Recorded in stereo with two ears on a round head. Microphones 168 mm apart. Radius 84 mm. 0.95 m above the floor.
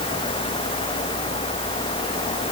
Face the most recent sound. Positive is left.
No sound to turn to.